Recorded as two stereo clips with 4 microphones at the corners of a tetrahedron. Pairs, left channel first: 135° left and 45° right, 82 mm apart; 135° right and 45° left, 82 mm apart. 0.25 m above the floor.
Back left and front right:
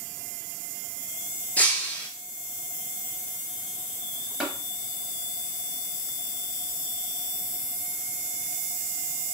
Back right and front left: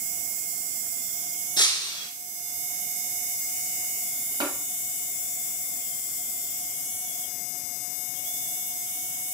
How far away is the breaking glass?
About 1.0 m.